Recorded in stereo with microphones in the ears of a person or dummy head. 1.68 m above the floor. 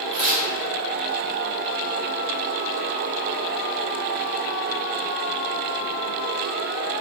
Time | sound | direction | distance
0.1 | tearing paper | centre (ahead or behind) | 1.4 m